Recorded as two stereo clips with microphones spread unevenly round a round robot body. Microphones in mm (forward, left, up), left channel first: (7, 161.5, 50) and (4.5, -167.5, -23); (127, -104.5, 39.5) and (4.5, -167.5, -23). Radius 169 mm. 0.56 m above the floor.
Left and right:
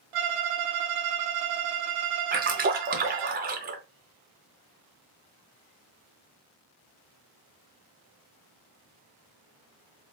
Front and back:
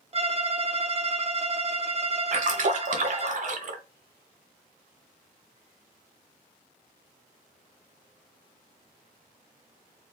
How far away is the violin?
About 0.6 m.